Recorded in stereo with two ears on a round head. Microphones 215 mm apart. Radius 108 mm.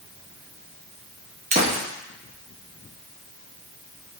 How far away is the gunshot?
About 0.9 m.